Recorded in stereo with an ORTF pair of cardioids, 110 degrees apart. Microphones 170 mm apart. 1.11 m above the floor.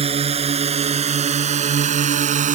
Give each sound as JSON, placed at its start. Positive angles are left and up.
{"t": 0.0, "sound": "a drone", "azimuth_deg": -35}